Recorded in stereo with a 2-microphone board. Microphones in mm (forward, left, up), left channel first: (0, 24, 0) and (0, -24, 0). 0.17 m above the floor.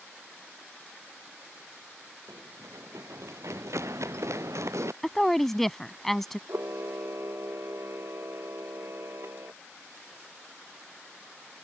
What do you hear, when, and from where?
2.3 s running footsteps: 80° right; by 4.9 s 75° right (ahead or behind)
5.0 s a woman speaking: 5° left (ahead or behind)
6.5 s a camera shutter: 70° right (ahead or behind)